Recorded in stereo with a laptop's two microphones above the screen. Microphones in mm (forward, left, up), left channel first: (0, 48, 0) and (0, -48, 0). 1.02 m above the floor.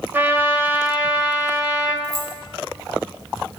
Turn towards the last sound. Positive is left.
turn(degrees=-80)